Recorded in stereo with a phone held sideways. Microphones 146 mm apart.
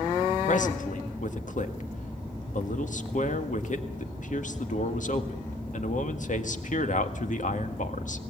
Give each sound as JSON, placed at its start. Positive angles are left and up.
{"t": 0.5, "sound": "a man speaking", "side_deg": 60, "distance_m": 1.8}